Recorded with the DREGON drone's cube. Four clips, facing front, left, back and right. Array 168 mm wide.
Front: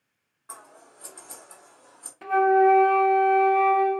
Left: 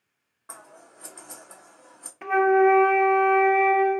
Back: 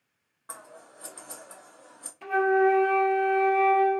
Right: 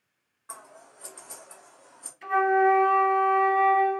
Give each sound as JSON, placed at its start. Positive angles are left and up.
{"t": 0.5, "sound": "scissors", "azimuth_deg": 135, "distance_m": 1.4}
{"t": 2.2, "sound": "a flute", "azimuth_deg": 70, "distance_m": 0.6}